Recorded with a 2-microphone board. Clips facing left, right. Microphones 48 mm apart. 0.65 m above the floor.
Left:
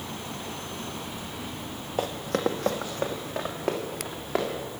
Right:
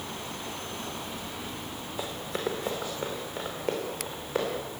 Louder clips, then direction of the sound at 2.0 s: Left 6 dB; 60° left (ahead or behind).